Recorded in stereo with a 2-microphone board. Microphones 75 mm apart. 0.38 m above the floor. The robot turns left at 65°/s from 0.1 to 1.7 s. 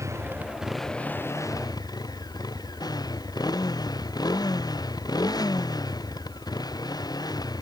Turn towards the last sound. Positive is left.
turn(degrees=115)